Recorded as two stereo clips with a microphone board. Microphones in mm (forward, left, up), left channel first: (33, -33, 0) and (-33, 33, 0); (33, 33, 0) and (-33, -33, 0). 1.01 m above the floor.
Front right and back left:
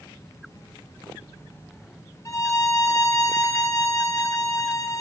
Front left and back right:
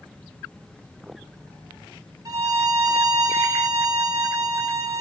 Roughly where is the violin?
Right.